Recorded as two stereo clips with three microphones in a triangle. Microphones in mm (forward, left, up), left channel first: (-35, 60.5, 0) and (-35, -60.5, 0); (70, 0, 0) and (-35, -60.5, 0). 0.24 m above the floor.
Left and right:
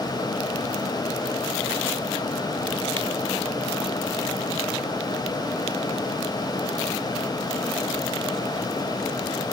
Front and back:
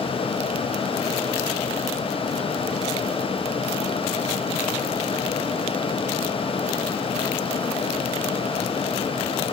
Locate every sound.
Only background noise.